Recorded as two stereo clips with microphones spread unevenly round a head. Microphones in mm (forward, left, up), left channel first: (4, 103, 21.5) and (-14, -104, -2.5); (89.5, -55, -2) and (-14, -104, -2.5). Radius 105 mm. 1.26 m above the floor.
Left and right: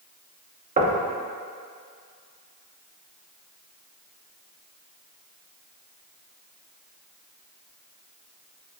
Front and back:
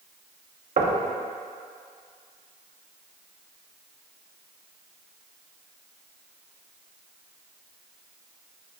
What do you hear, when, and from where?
0.8 s knocking: 155° right, 1.1 m